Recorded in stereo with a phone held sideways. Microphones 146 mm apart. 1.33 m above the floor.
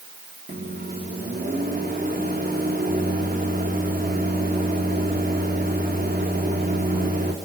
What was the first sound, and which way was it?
A microwave, 80° right.